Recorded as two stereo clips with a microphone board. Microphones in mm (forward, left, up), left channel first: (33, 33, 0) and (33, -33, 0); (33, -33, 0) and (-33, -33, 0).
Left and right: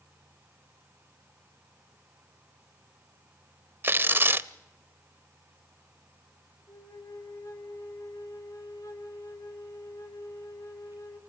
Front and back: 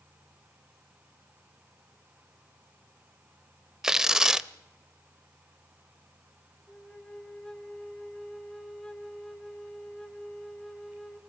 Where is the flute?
80° left, 2.5 m.